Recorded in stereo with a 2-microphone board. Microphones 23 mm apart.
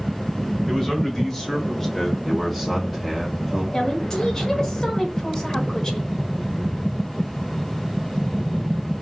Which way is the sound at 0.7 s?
15° left (ahead or behind).